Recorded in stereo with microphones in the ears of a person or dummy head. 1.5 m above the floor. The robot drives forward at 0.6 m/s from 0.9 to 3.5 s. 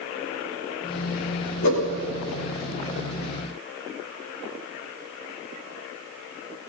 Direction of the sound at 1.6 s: 65° left (ahead or behind).